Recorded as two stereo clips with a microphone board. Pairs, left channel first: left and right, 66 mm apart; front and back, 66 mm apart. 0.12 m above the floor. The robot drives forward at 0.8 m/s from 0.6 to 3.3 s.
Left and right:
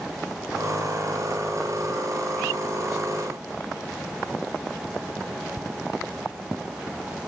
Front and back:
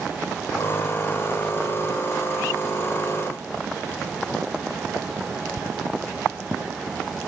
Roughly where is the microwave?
No microwave in this recording.